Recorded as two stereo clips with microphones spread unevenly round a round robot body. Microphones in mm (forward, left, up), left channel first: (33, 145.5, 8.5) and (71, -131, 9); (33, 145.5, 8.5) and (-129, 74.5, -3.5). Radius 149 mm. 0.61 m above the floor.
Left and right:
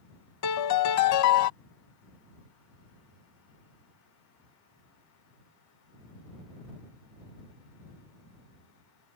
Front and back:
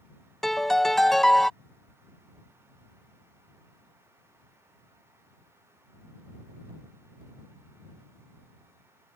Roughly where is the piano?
Left.